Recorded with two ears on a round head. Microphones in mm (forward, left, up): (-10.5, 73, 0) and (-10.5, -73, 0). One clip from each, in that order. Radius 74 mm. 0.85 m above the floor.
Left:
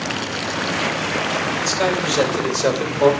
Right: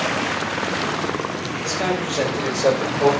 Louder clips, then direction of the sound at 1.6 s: Left 1 dB; 80° left.